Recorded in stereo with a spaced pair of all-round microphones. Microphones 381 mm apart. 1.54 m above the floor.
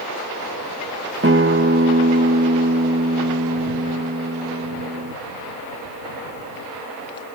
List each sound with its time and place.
1.2 s a guitar: 30° right (ahead or behind)